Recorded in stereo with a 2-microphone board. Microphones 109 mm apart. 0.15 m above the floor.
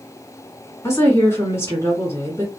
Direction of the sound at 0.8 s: 30° left (ahead or behind).